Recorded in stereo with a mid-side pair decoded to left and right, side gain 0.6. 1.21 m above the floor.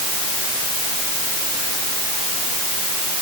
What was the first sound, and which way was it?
Only background noise.